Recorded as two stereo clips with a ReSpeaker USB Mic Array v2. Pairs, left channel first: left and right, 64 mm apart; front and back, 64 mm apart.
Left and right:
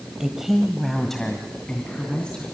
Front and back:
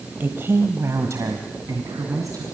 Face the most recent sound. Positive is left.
turn(degrees=165)